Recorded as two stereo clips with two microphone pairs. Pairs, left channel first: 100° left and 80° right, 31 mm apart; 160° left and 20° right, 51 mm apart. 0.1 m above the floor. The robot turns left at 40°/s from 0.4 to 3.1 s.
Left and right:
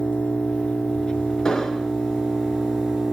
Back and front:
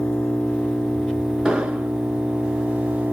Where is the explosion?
45° left, 0.6 m; by 1.9 s 25° left, 0.6 m.